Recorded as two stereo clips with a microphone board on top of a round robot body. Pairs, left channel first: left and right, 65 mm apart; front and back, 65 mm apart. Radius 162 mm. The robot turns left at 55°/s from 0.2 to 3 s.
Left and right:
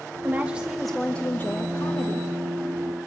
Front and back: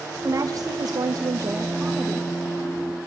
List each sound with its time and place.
0.2 s a woman speaking: 145° right, 1.5 m; by 2.3 s 105° left, 1.5 m